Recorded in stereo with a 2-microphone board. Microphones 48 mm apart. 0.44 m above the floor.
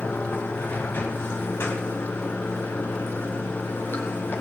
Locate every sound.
0.0 s running water: 50° left (ahead or behind), 2.5 m